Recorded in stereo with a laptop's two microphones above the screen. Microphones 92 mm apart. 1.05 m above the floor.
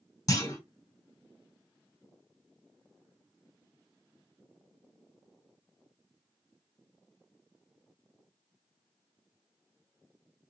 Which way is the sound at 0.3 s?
40° left (ahead or behind).